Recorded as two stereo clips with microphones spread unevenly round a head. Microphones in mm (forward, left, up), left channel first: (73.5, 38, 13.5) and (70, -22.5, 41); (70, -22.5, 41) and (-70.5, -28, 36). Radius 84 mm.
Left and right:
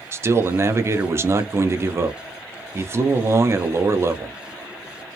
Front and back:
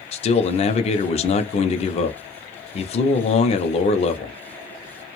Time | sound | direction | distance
0.1 | a man speaking | 45° right | 0.6 m